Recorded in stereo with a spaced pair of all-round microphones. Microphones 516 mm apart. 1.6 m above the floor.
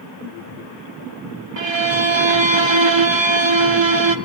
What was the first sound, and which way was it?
A violin, 55° right (ahead or behind).